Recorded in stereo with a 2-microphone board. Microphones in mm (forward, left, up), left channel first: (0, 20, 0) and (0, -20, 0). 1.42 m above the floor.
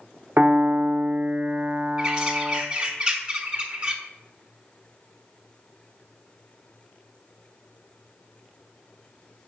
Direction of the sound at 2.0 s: 25° right (ahead or behind).